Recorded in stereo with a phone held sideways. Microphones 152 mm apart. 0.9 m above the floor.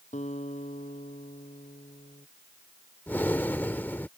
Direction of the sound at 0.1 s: 50° left (ahead or behind).